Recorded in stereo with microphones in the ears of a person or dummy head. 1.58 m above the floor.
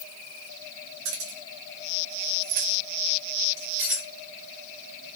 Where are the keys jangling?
70° right (ahead or behind), 1.5 m; by 4.0 s 10° right (ahead or behind), 1.4 m.